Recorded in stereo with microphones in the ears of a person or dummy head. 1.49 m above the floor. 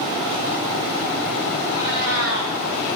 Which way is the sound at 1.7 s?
75° right (ahead or behind).